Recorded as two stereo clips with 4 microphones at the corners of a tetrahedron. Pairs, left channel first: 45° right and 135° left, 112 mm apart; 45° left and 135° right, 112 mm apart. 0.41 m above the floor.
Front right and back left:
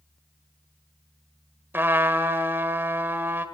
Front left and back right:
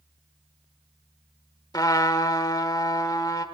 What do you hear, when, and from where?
1.7 s a trumpet: 75° left, 1.4 m